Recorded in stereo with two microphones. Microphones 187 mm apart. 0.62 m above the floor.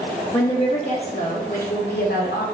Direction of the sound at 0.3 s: 10° left (ahead or behind).